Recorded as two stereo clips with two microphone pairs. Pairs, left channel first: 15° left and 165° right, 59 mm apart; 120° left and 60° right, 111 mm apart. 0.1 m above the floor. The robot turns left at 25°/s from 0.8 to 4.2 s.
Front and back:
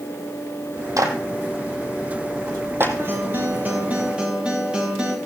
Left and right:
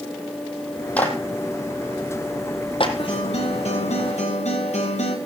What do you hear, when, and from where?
1.0 s a clap: 165° right, 3.5 m; by 2.9 s 150° left, 3.5 m
3.0 s a guitar: 150° left, 4 m; by 5.2 s 120° left, 4 m